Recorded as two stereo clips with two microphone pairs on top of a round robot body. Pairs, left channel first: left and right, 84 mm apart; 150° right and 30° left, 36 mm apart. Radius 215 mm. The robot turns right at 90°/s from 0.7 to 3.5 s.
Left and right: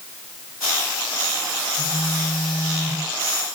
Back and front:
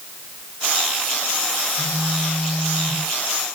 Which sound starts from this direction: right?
A phone buzzing, at 1.8 s.